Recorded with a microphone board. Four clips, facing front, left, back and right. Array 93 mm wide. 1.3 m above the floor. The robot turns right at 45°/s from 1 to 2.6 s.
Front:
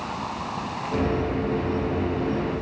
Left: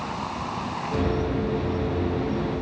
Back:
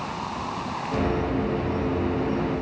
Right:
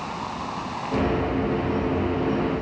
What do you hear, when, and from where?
Only background noise.